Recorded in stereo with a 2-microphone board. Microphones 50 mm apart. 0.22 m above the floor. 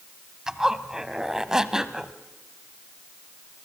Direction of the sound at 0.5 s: 15° right (ahead or behind).